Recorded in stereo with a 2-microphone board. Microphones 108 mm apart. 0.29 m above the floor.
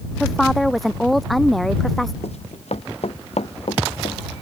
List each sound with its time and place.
0.2 s a woman speaking: centre (ahead or behind)
2.2 s running footsteps: 70° left (ahead or behind)